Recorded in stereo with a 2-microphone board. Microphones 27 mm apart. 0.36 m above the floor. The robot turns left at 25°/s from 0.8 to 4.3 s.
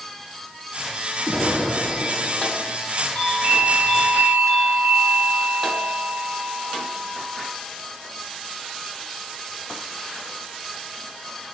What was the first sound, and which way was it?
An explosion, 155° left.